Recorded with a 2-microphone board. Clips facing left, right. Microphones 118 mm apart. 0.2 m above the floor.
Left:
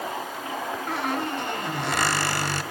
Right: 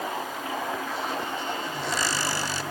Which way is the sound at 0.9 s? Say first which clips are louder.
Left 3 dB; 60° left (ahead or behind).